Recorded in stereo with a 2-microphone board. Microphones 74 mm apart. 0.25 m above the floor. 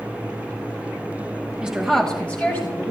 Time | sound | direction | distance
1.6 | a woman speaking | 15° right (ahead or behind) | 1.4 m